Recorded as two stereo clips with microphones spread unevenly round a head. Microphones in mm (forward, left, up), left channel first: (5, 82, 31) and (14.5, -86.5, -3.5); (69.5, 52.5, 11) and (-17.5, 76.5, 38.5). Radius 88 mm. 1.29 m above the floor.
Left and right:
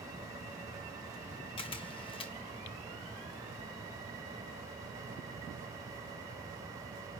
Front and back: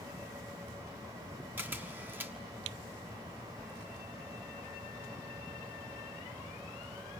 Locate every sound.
1.6 s a camera shutter: 125° left, 1.0 m